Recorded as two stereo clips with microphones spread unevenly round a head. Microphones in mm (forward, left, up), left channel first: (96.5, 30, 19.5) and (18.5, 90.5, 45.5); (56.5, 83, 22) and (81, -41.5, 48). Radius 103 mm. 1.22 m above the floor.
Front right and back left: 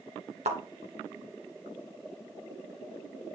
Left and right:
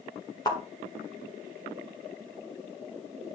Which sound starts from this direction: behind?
A thud, at 0.5 s.